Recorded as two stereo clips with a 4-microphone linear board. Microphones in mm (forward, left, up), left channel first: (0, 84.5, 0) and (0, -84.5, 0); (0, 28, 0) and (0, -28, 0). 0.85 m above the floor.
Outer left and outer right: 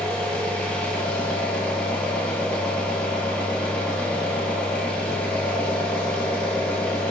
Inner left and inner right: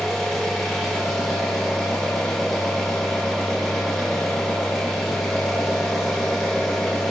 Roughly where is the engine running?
Centre.